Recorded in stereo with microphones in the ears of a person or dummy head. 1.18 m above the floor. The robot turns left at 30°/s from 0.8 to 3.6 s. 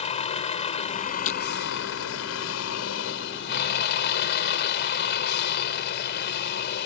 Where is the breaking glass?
40° left (ahead or behind); by 1.4 s 35° left (ahead or behind).